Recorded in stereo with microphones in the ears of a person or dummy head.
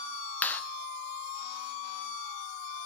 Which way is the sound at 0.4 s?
5° left (ahead or behind).